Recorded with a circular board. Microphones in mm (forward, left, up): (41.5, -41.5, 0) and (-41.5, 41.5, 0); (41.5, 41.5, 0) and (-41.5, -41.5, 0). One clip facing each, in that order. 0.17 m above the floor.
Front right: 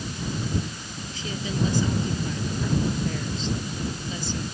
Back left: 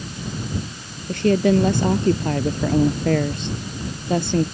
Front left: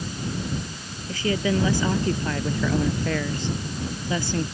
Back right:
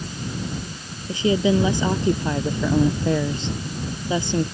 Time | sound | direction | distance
1.1 | a woman speaking | 155° left | ?